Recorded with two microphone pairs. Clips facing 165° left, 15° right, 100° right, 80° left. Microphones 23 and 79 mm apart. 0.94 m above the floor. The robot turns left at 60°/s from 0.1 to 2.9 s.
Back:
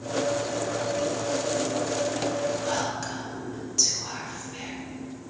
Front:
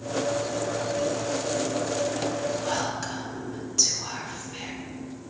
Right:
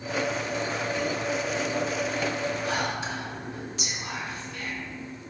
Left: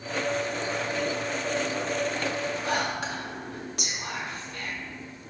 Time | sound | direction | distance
2.6 | whispering | 85° left | 2 m